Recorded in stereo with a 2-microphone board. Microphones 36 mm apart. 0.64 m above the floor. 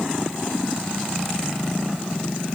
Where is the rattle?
No rattle in this recording.